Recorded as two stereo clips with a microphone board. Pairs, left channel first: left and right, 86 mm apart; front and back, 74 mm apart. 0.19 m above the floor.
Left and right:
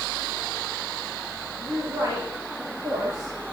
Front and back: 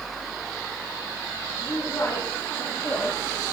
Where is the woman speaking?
35° right, 3 m; by 3.3 s 55° right, 4.5 m.